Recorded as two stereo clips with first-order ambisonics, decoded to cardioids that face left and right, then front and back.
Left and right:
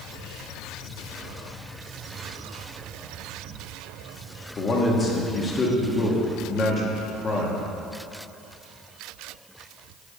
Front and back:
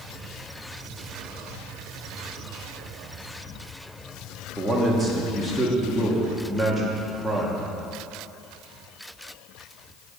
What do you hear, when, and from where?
4.6 s a man speaking: 95° left, 1.1 m